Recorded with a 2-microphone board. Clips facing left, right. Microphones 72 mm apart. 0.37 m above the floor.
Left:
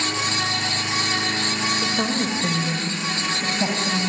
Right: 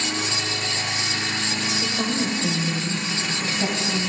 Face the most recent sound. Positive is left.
turn(degrees=20)  # may be behind; listen again after turning